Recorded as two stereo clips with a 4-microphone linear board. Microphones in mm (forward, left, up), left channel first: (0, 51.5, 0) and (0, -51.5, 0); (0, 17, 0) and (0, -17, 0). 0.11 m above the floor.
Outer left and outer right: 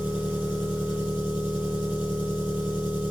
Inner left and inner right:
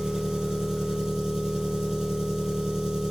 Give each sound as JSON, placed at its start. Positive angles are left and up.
{"t": 0.0, "sound": "an engine running", "side_deg": -20, "distance_m": 2.5}